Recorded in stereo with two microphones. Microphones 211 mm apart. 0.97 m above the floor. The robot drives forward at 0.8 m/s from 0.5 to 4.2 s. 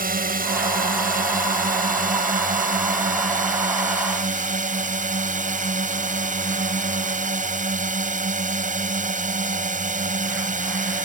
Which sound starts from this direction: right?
A drone, at 0.0 s.